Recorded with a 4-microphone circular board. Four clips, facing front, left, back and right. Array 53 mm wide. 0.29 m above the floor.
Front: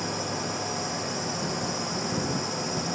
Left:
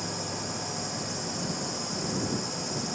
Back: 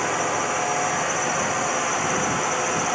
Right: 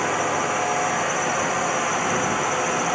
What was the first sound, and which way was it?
A drone, 125° right.